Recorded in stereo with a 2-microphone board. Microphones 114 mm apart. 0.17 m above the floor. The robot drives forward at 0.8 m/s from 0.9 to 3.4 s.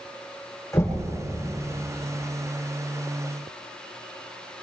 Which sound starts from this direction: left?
Knocking, at 0.7 s.